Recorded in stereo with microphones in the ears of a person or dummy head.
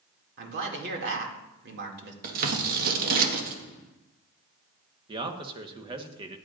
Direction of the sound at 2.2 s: 50° right (ahead or behind).